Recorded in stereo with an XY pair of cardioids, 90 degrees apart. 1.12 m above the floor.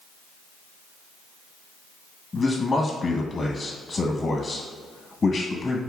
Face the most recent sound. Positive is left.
turn(degrees=40)